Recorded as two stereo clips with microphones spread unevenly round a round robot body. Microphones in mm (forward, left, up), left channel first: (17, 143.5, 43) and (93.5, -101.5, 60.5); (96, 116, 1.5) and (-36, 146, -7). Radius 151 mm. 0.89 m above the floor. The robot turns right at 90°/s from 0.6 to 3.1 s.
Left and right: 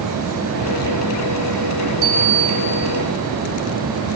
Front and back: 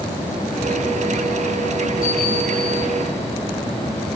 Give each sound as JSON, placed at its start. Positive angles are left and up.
{"t": 2.0, "sound": "a bell", "azimuth_deg": -75, "distance_m": 4.0}